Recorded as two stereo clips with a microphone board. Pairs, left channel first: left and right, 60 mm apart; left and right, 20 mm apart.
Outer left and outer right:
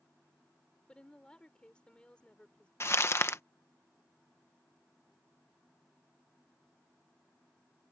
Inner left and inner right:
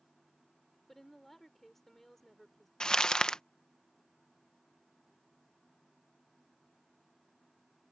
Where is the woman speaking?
15° left (ahead or behind).